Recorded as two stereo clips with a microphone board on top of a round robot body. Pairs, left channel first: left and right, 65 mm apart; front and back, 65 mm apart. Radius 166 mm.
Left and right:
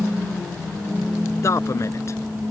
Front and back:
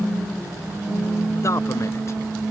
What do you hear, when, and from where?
1.4 s a man speaking: 45° left